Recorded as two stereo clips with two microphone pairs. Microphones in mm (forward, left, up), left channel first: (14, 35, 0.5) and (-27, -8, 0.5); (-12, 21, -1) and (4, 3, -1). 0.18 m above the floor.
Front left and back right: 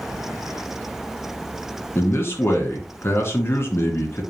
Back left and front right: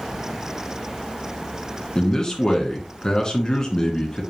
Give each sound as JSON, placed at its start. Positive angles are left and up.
{"t": 1.9, "sound": "a man speaking", "azimuth_deg": 75, "distance_m": 2.5}